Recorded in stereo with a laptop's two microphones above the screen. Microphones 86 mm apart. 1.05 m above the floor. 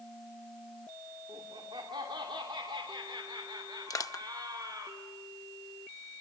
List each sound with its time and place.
1.3 s laughter: 70° right (ahead or behind), 2.5 m; by 4.9 s 45° right (ahead or behind), 4.5 m
3.9 s crushing: 40° left (ahead or behind), 0.8 m